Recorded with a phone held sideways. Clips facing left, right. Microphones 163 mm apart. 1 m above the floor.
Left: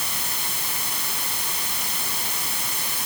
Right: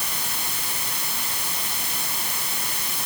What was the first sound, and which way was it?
Only background noise.